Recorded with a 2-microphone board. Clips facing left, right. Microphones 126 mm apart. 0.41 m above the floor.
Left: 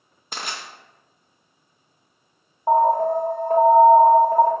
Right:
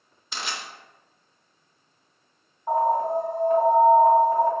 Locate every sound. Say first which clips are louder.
0.3 s crushing: left 1 dB; 45° left (ahead or behind), 0.6 m
2.7 s an alarm: left 5 dB; 45° left (ahead or behind), 1.0 m